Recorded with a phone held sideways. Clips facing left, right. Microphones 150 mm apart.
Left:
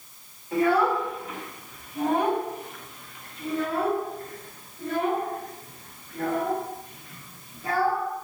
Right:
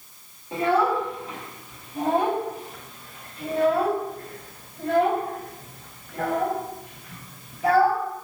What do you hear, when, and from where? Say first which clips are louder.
0.5 s a child speaking: even; 25° right (ahead or behind), 4 m; by 8.0 s 90° right, 3.5 m